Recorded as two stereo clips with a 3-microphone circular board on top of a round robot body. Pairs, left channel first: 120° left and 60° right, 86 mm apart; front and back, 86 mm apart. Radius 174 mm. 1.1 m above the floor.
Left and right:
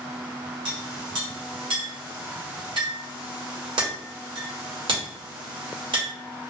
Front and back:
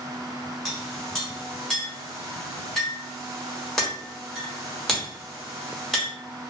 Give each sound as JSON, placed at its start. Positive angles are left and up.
{"t": 0.7, "sound": "a clink", "azimuth_deg": -85, "distance_m": 1.5}